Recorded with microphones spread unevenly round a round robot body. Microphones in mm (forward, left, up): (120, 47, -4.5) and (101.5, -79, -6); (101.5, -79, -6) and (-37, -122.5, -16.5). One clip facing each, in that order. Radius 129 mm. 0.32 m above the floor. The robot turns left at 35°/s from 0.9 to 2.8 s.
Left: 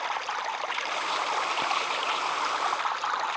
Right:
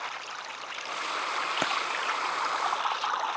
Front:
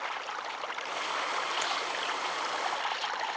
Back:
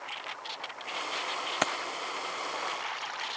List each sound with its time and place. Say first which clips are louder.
0.0 s running water: left 8 dB, front 5 dB; 55° left; by 3.4 s 15° right
1.6 s keys jangling: right 2 dB, back 4 dB; 145° right; by 1.8 s 150° right